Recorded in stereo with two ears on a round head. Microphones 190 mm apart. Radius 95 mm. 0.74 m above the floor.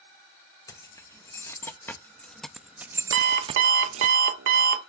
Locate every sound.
0.7 s keys jangling: 15° left (ahead or behind), 1.4 m; by 4.1 s 30° right (ahead or behind), 0.6 m
3.1 s an alarm clock: 60° right (ahead or behind), 1.3 m